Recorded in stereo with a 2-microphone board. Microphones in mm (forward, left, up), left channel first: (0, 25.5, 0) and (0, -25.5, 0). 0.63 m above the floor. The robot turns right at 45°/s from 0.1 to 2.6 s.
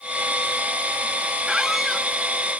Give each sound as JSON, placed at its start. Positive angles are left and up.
{"t": 1.5, "sound": "a squeak", "side_deg": -15, "distance_m": 0.7}